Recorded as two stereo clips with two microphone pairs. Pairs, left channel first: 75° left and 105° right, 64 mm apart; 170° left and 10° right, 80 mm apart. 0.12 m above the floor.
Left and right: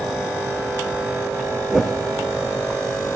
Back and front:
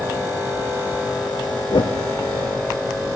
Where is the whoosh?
170° left, 1.8 m.